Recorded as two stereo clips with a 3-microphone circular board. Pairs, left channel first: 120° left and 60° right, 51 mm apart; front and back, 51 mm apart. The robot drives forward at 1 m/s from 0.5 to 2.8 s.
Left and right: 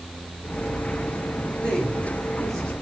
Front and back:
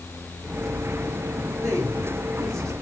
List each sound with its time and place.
1.6 s a man speaking: 170° right, 5 m